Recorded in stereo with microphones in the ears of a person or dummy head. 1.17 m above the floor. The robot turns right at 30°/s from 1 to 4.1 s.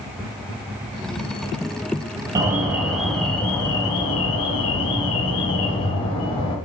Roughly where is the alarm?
Ahead.